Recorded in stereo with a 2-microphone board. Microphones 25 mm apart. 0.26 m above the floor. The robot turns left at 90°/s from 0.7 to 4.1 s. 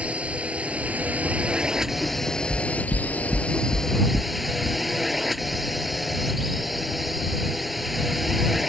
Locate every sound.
0.0 s a drone: 55° right; by 8.7 s straight ahead
2.5 s knocking: 10° right (ahead or behind); by 4.3 s 20° right (ahead or behind)